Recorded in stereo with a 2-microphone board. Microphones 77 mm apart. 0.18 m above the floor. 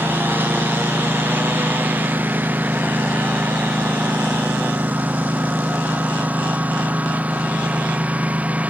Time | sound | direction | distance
0.0 | a lawn mower | 25° right (ahead or behind) | ?